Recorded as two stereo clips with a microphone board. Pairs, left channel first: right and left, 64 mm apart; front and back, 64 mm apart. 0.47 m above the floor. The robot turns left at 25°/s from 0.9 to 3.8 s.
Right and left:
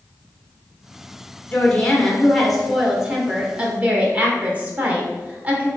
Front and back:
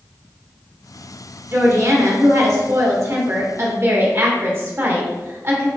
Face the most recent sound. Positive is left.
turn(degrees=145)